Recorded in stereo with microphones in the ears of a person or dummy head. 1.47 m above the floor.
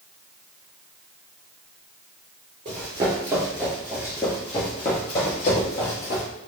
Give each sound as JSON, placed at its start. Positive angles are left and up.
{"t": 2.6, "sound": "running footsteps", "side_deg": -25, "distance_m": 1.6}